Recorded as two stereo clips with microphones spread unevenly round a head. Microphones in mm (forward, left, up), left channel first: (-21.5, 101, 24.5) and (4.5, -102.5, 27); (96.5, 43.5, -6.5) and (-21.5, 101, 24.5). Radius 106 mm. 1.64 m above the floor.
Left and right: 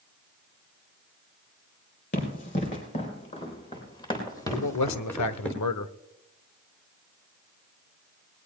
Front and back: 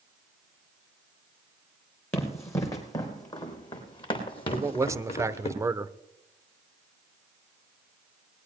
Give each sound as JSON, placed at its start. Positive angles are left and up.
{"t": 2.1, "sound": "running footsteps", "azimuth_deg": 50, "distance_m": 4.0}
{"t": 4.5, "sound": "a man speaking", "azimuth_deg": 90, "distance_m": 1.0}